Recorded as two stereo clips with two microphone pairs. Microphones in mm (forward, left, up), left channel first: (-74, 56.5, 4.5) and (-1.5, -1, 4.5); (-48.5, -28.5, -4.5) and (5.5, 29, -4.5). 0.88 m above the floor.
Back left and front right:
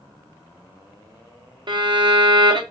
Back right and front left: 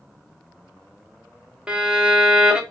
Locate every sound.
1.7 s a violin: 30° right, 0.5 m